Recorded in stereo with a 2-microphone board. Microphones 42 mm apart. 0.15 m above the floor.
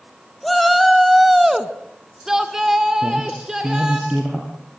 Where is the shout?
Centre (ahead or behind), 1.4 m; by 4.0 s 15° right (ahead or behind), 1.8 m.